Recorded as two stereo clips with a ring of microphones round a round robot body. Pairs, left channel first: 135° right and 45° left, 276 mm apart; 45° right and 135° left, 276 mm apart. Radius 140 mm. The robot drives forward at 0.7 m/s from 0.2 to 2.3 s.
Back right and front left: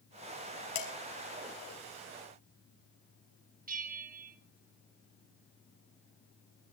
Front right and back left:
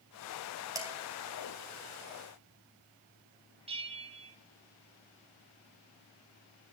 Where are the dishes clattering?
145° right, 3 m; by 0.9 s 150° right, 3 m.